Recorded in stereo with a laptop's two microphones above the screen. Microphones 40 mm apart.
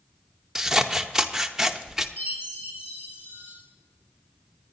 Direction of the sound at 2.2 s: 75° left (ahead or behind).